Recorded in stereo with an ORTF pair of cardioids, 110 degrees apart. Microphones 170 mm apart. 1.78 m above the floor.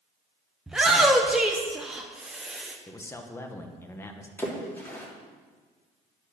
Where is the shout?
5° right, 1.1 m.